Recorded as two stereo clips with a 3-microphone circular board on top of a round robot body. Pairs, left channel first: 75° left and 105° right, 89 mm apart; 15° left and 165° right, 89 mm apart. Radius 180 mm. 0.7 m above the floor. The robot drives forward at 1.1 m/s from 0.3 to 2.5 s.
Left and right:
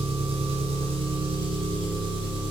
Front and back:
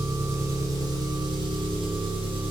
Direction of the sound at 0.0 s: 95° right.